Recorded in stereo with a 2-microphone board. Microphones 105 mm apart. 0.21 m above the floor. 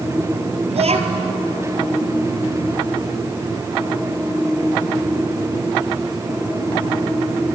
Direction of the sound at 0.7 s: 75° right (ahead or behind).